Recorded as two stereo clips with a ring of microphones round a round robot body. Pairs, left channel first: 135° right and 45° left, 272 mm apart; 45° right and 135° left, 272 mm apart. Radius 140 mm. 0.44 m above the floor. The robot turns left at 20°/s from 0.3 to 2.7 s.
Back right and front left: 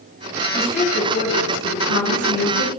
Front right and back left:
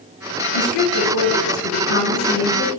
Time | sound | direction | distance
0.5 | a woman speaking | 65° right | 4 m